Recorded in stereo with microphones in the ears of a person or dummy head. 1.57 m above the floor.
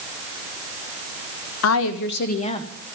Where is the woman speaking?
75° left (ahead or behind), 1.3 m; by 2.7 s 25° left (ahead or behind), 1.6 m.